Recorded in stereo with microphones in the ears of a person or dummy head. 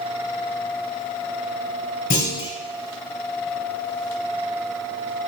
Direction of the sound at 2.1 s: 30° left (ahead or behind).